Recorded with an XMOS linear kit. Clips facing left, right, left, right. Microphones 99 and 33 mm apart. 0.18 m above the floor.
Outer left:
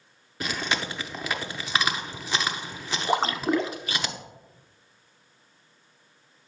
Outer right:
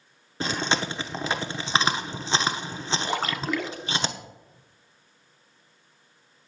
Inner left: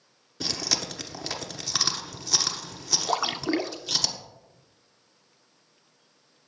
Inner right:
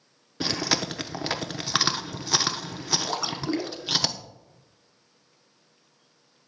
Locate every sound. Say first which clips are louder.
0.4 s chewing: outer right 3 dB, inner right 4 dB; 30° right (ahead or behind), 0.9 m
3.1 s a splash: outer left 7 dB, inner left 2 dB; 25° left (ahead or behind), 0.7 m